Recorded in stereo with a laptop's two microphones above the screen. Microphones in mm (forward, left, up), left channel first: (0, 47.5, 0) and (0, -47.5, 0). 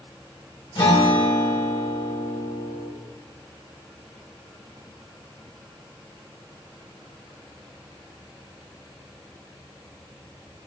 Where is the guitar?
75° left (ahead or behind), 4.5 m.